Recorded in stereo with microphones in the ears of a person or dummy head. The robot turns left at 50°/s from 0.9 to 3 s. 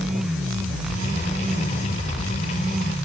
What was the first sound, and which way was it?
Only background noise.